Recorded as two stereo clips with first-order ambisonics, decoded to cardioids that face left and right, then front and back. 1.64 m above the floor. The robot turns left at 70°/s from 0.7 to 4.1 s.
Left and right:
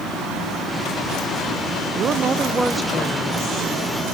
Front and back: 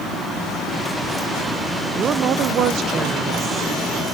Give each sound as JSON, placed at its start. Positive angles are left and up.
{"t": 1.9, "sound": "a woman speaking", "azimuth_deg": -125, "distance_m": 0.6}